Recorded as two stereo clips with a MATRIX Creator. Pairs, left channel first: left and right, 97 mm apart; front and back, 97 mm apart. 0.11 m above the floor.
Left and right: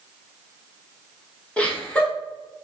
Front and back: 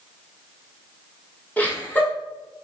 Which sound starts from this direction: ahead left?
Laughter, at 1.6 s.